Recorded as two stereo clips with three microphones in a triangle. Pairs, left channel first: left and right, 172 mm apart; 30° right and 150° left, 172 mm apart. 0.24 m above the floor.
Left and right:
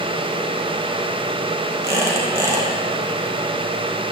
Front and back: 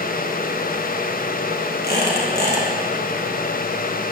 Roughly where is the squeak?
Ahead.